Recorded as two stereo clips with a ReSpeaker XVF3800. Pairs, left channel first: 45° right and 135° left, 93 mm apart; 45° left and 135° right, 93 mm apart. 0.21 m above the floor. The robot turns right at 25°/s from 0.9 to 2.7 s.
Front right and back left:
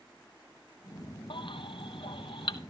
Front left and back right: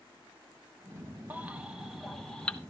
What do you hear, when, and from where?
1.3 s a baby crying: 65° right, 0.8 m; by 2.6 s 30° right, 0.8 m